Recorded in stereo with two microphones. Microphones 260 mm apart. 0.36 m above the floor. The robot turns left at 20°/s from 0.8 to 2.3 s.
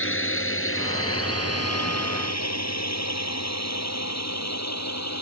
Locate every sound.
0.0 s a drone: 50° left (ahead or behind); by 5.2 s 80° left